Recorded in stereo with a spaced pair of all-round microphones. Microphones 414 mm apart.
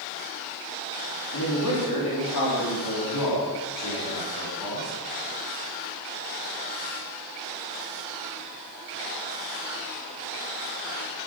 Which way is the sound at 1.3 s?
60° left (ahead or behind).